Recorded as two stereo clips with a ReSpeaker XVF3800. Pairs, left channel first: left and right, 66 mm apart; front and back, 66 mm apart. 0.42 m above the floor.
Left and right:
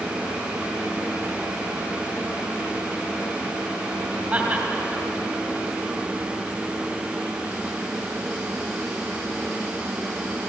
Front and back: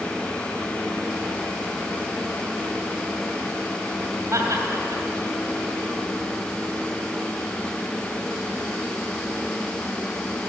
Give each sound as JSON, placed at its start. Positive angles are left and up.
{"t": 4.3, "sound": "laughter", "azimuth_deg": -155, "distance_m": 3.0}